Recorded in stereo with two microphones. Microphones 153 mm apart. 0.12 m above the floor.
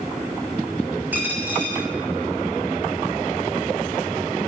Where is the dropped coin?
10° right (ahead or behind), 1.8 m.